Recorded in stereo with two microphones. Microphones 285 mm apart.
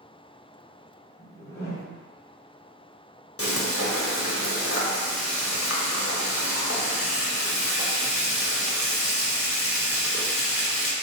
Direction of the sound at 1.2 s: 35° left (ahead or behind).